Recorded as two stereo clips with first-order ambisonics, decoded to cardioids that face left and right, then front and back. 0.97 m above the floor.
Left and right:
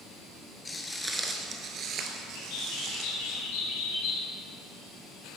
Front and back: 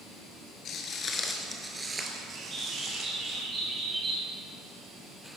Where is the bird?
110° left, 2.5 m.